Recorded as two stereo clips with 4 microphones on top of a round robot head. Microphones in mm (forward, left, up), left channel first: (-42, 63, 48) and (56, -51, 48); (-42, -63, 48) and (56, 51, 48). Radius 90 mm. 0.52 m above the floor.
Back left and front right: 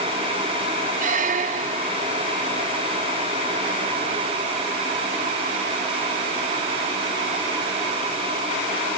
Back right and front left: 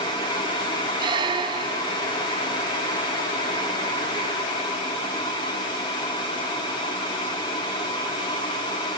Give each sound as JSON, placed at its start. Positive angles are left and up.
{"t": 1.0, "sound": "a squeak", "azimuth_deg": -10, "distance_m": 1.4}